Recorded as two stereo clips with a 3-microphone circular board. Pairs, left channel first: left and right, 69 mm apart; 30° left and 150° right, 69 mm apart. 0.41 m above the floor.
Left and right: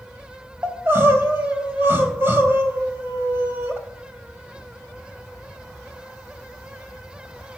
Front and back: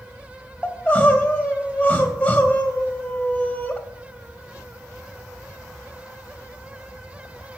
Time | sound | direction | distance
0.6 | crying | 40° right | 2.5 m